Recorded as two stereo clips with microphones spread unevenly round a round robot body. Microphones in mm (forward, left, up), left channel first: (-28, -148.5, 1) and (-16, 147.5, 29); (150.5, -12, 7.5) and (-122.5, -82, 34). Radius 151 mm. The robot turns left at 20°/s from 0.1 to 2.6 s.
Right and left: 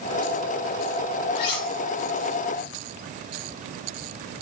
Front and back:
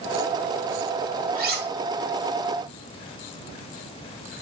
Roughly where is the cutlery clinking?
Right.